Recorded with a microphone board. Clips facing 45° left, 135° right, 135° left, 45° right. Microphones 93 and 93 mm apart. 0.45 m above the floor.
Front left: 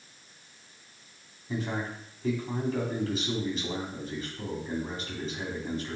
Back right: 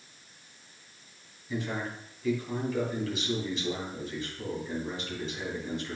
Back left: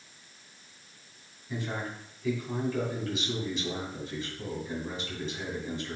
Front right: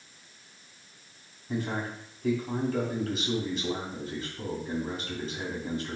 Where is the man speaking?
5° right, 3 m.